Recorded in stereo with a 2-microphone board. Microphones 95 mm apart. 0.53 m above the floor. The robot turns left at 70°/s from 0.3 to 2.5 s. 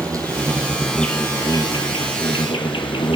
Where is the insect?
140° right, 1.3 m; by 3.2 s 65° left, 1.3 m.